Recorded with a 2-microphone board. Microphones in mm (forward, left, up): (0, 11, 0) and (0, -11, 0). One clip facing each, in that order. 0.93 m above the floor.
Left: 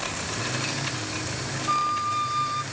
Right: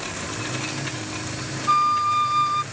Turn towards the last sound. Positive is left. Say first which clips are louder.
# right 6 dB
turn(degrees=-20)  # may be behind; listen again after turning